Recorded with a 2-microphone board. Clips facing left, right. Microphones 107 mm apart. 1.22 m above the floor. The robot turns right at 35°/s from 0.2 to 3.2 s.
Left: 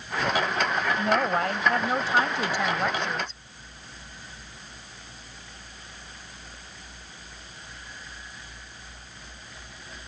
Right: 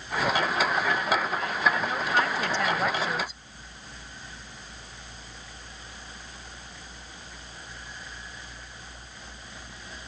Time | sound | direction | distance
1.0 | a woman speaking | 110° left | ?